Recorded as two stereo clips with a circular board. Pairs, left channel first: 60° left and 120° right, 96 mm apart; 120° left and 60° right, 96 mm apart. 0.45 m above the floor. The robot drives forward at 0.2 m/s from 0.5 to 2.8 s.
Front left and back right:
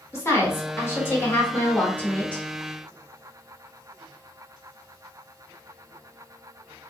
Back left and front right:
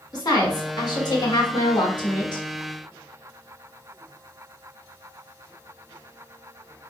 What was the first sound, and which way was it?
A woman speaking, 110° left.